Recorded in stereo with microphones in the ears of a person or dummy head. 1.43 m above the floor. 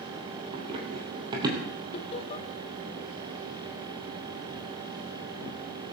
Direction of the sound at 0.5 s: 35° right (ahead or behind).